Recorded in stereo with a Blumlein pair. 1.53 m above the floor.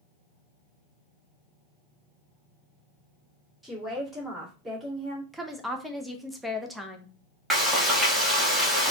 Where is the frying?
5° right, 1.4 m.